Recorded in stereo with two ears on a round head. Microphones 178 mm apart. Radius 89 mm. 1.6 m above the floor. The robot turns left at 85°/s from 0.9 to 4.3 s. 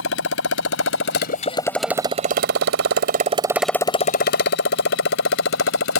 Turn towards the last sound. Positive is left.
turn(degrees=70)  # may be behind; listen again after turning